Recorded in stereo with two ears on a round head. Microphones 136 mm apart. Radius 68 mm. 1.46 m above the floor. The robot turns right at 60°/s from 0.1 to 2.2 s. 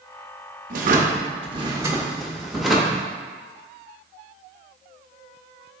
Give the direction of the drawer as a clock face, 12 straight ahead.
3 o'clock.